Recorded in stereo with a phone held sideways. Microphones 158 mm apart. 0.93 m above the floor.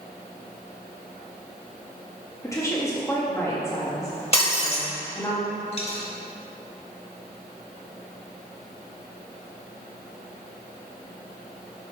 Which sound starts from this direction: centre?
A woman speaking, at 2.4 s.